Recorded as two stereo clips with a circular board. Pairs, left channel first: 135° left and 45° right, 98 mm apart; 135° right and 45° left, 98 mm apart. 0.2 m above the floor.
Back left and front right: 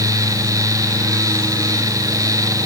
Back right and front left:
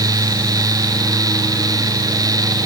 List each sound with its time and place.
Only background noise.